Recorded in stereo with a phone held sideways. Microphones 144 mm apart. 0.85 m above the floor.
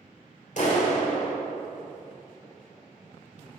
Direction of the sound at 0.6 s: 60° left (ahead or behind).